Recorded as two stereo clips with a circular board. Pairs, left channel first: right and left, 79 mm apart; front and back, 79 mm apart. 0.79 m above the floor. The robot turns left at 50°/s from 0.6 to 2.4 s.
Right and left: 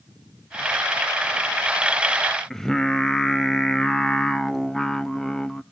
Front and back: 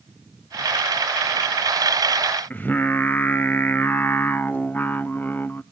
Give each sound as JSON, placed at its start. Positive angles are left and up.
{"t": 2.5, "sound": "singing", "azimuth_deg": -15, "distance_m": 0.5}